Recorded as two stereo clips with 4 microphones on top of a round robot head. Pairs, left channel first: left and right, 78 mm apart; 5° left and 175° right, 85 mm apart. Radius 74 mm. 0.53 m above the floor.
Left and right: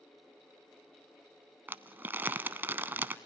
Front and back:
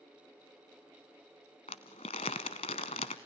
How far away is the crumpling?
About 0.7 m.